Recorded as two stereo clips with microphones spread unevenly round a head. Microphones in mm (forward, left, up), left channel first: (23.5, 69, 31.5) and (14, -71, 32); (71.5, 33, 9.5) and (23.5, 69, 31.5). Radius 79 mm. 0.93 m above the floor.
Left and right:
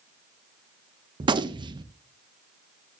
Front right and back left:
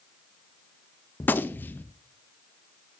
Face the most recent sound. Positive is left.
turn(degrees=-50)